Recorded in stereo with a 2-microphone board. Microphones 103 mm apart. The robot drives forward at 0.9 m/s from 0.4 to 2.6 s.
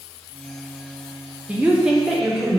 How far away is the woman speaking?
About 0.5 m.